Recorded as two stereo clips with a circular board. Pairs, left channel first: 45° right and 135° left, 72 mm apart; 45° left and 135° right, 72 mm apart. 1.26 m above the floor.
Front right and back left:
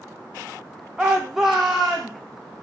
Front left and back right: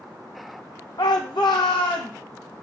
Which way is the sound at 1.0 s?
55° left.